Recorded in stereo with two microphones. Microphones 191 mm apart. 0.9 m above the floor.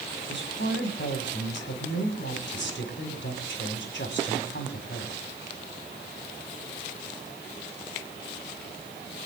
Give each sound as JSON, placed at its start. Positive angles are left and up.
{"t": 0.3, "sound": "a woman speaking", "side_deg": 70, "distance_m": 5.5}